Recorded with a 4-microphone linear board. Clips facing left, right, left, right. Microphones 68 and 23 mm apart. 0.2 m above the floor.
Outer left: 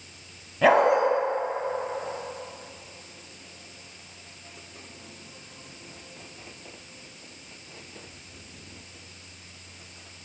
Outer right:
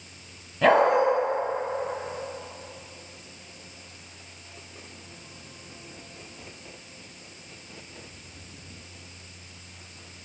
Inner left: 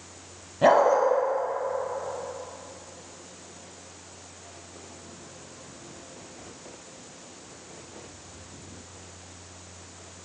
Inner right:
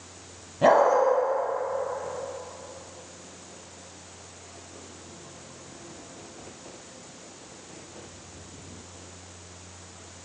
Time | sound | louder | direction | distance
0.6 | a dog barking | even, even | 5° left (ahead or behind) | 1.1 m